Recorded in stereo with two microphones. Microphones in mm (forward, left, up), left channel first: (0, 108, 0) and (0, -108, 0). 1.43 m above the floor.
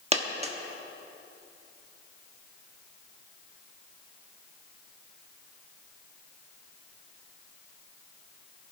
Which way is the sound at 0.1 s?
30° right (ahead or behind).